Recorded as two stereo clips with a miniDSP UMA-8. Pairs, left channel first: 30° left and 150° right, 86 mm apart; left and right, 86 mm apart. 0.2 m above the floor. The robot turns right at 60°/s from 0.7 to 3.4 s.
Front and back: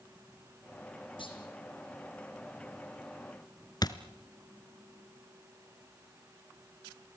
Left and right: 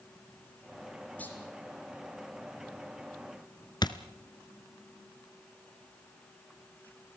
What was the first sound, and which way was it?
A clunk, 20° left.